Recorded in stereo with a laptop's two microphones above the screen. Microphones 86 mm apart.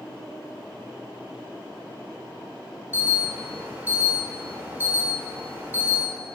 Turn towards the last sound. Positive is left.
turn(degrees=-20)  # may be behind; listen again after turning